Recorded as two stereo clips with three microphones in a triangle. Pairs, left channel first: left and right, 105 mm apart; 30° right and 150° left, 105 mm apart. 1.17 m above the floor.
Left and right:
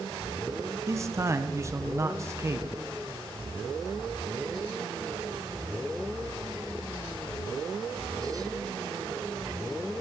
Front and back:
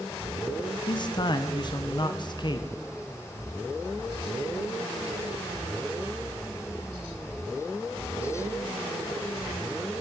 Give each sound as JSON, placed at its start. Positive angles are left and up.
{"t": 0.9, "sound": "a man speaking", "azimuth_deg": -40, "distance_m": 0.9}